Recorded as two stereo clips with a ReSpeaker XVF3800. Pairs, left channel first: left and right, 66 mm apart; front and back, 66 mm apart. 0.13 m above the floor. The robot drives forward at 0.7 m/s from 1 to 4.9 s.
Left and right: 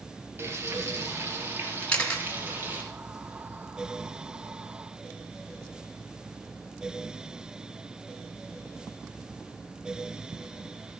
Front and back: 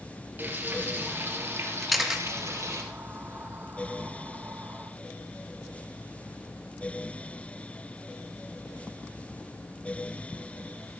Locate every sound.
0.4 s frying: 130° right, 2.5 m; by 2.8 s 150° right, 3 m
1.8 s a camera shutter: 80° left, 1.6 m; by 2.3 s 115° left, 1.6 m